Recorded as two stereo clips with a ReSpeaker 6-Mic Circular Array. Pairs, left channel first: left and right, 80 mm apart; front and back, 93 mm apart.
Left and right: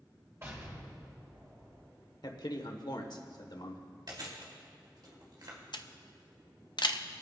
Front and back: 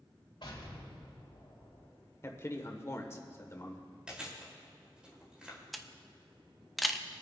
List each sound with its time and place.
0.4 s an explosion: 30° right, 3.5 m
2.2 s a man speaking: 60° left, 1.3 m
4.1 s chewing: 100° right, 2.5 m
5.7 s a camera shutter: 90° left, 0.6 m